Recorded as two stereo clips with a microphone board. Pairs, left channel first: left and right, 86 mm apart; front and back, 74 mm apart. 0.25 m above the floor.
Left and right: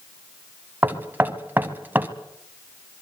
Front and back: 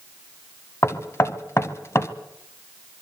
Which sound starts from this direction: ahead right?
Knocking, at 0.8 s.